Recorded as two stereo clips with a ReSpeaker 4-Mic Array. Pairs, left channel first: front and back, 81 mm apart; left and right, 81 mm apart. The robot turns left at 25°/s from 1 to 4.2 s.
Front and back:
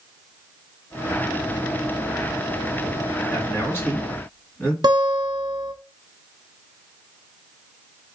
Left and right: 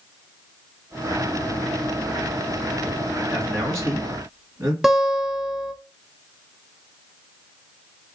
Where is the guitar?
175° right, 0.7 m.